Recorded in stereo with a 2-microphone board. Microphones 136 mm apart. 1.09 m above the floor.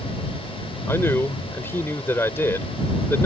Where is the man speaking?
15° left (ahead or behind).